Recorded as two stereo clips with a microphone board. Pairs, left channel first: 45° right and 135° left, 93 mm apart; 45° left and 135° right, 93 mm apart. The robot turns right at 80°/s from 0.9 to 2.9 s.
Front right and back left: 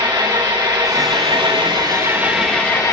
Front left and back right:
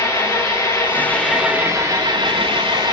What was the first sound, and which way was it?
An engine running, 100° left.